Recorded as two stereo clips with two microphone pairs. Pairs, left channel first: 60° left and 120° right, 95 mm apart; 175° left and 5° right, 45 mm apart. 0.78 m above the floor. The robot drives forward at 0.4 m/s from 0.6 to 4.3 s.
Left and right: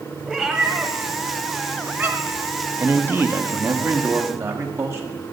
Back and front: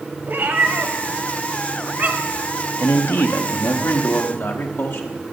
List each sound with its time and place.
0.3 s a cat meowing: 25° right, 1.3 m; by 2.5 s 55° right, 0.8 m
2.8 s a man speaking: 175° left, 0.6 m; by 5.2 s straight behind, 1.2 m